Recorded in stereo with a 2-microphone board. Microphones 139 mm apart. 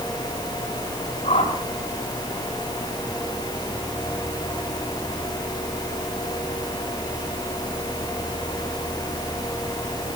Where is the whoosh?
65° left (ahead or behind), 8 m.